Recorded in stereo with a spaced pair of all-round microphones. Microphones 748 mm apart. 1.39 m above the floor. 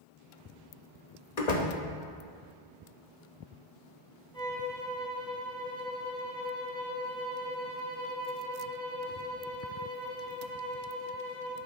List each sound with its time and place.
1.4 s a door slam: 55° left (ahead or behind), 1.2 m
4.3 s a violin: 5° left (ahead or behind), 3 m